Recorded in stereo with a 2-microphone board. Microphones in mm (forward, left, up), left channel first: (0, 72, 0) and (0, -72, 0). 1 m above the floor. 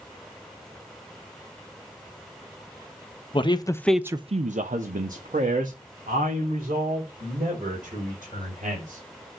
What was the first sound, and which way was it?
A man speaking, 35° left (ahead or behind).